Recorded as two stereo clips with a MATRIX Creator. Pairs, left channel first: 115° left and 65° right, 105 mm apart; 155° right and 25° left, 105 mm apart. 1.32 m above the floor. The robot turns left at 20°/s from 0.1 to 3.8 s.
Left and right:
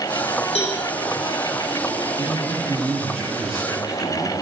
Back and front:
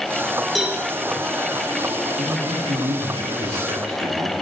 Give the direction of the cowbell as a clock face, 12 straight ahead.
8 o'clock.